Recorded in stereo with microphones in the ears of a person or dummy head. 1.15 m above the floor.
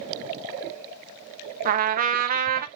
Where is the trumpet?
40° right (ahead or behind), 0.9 m.